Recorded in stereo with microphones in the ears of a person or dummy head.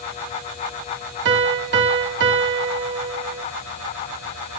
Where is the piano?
60° right (ahead or behind), 1.0 m.